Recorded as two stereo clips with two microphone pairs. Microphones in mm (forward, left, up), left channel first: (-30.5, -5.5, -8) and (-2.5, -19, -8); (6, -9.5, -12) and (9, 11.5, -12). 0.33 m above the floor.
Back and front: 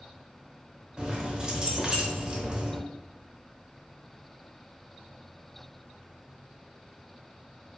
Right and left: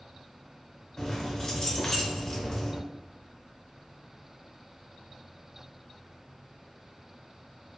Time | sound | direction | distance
1.0 | keys jangling | 70° right | 0.7 m